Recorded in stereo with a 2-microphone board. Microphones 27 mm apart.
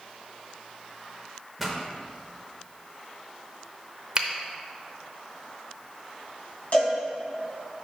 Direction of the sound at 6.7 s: 60° left (ahead or behind).